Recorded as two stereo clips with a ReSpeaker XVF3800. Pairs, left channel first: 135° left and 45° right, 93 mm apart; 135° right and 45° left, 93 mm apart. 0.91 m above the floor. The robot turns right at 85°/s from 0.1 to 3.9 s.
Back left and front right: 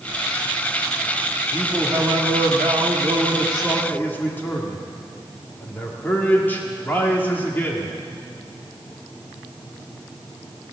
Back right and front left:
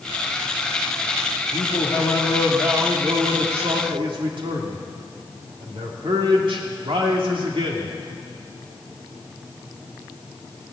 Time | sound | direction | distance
1.5 | a man speaking | 135° right | 2 m